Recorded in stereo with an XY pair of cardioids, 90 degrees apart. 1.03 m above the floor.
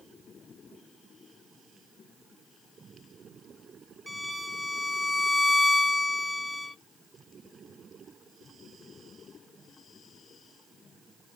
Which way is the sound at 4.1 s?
15° right.